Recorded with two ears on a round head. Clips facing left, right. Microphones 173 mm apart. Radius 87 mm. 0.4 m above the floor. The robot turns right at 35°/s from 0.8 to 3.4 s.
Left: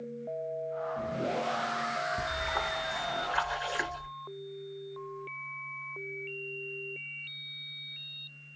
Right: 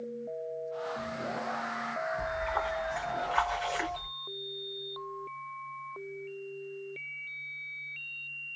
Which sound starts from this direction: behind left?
A splash, at 2.2 s.